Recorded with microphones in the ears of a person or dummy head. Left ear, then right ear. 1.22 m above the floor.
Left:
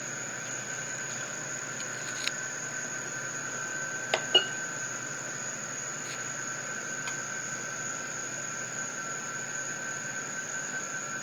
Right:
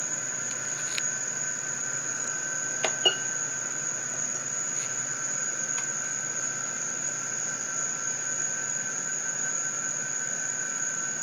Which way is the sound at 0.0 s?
40° right (ahead or behind).